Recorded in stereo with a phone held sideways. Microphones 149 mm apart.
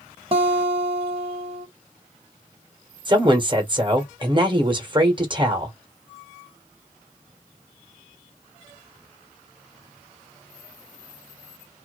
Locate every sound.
0.3 s a guitar: 40° right (ahead or behind), 0.8 m
3.0 s a woman speaking: 35° right (ahead or behind), 1.1 m